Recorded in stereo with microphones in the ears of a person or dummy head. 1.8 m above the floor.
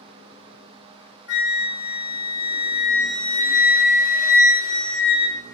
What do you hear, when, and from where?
1.3 s a flute: 80° left, 1.6 m